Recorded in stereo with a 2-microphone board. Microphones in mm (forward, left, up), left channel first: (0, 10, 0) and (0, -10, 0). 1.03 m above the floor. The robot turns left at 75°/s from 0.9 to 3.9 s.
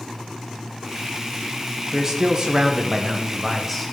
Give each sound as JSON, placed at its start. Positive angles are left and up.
{"t": 1.9, "sound": "a man speaking", "azimuth_deg": -45, "distance_m": 0.9}